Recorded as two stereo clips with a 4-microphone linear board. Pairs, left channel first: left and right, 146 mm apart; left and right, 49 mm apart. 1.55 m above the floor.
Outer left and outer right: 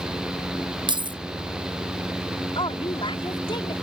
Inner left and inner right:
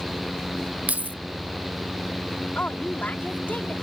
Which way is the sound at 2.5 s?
35° left (ahead or behind).